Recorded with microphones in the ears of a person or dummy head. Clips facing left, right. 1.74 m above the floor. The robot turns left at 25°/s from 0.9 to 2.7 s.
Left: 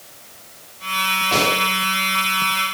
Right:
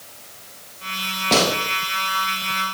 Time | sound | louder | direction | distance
1.3 | a gunshot | right 2 dB | 60° right (ahead or behind) | 3 m